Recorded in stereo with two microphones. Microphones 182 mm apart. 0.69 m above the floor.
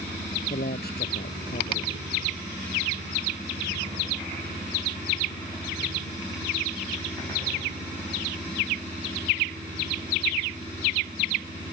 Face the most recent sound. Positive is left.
turn(degrees=60)  # may be behind; listen again after turning